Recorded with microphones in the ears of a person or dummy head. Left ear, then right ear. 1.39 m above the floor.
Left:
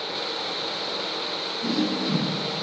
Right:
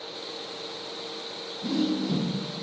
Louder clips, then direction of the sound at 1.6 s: Even; 70° left (ahead or behind).